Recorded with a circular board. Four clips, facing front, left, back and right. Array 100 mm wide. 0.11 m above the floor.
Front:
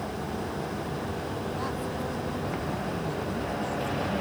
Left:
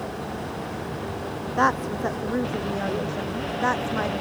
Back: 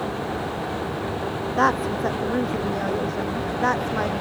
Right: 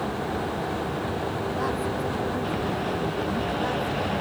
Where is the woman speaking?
145° left; by 4.1 s 150° left.